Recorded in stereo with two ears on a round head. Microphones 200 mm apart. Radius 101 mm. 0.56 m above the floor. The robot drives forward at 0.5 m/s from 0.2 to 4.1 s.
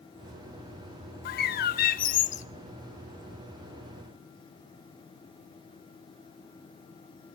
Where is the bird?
45° left (ahead or behind), 0.6 m; by 2.5 s 35° left (ahead or behind), 0.8 m.